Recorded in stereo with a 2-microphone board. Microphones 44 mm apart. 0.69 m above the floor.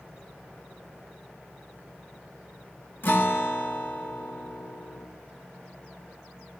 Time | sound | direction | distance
3.0 | a guitar | 50° left (ahead or behind) | 1.1 m